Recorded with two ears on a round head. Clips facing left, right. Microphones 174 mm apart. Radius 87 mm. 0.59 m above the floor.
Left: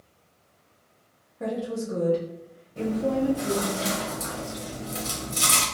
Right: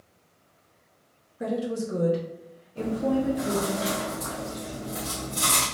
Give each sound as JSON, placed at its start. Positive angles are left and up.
{"t": 1.4, "sound": "a woman speaking", "side_deg": -20, "distance_m": 0.9}
{"t": 2.8, "sound": "chewing", "side_deg": 35, "distance_m": 1.0}